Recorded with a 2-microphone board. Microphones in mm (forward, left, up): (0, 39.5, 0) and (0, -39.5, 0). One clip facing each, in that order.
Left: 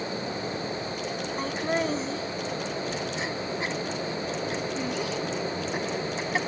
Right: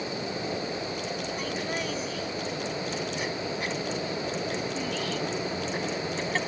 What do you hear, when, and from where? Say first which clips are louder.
1.4 s laughter: left 8 dB; 35° left (ahead or behind); by 6.4 s 15° left (ahead or behind)